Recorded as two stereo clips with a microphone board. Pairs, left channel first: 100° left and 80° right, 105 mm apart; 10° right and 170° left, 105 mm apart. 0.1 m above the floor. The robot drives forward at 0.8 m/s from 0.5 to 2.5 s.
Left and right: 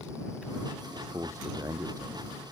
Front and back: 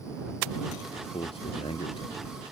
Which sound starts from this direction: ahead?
A man speaking, at 1.0 s.